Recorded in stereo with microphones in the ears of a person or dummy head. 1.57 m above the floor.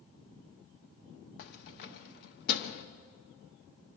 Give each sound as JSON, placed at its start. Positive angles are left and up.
{"t": 1.4, "sound": "keys jangling", "side_deg": 55, "distance_m": 1.1}